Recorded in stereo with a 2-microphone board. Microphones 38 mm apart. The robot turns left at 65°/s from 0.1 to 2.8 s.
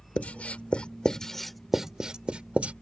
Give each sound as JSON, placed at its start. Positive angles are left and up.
{"t": 0.2, "sound": "writing", "side_deg": 35}